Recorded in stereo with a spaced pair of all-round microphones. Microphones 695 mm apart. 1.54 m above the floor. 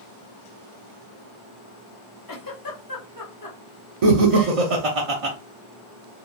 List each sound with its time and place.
2.3 s a giggle: 30° left (ahead or behind), 0.6 m
4.0 s laughter: 55° right (ahead or behind), 0.6 m